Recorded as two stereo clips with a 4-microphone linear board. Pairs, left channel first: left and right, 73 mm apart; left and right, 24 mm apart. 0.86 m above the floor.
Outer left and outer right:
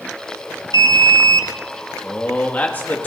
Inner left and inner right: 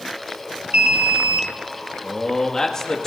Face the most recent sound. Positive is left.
turn(degrees=25)  # may be behind; listen again after turning